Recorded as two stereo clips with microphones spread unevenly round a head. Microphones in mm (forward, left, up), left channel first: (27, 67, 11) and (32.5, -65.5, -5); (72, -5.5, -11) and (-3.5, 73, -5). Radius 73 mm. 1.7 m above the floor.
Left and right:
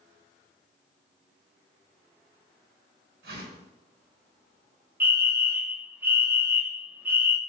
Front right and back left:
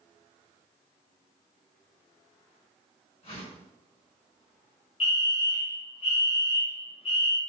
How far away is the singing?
I don't hear singing.